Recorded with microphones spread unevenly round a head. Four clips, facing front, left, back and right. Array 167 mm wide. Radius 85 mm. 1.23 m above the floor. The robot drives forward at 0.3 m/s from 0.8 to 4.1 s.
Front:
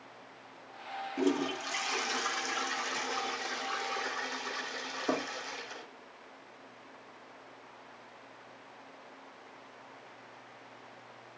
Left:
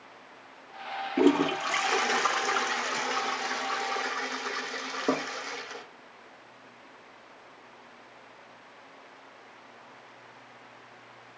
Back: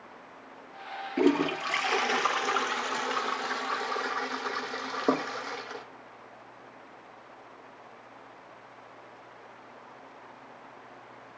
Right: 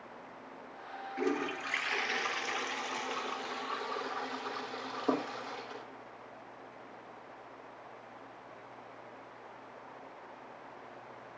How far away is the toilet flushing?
About 0.7 m.